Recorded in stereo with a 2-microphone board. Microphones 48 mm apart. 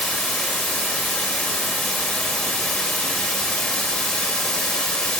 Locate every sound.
0.0 s running water: 10° left (ahead or behind), 1.5 m